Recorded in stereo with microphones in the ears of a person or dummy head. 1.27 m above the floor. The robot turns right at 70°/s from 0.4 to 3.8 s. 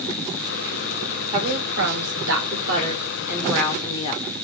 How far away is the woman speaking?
About 1.5 m.